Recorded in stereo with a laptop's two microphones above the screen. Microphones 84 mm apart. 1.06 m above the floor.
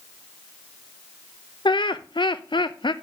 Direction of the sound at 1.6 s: 65° left (ahead or behind).